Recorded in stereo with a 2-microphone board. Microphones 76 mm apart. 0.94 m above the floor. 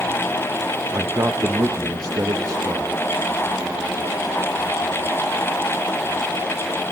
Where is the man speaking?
45° right (ahead or behind), 1.2 m; by 2.9 s 50° right (ahead or behind), 1.8 m.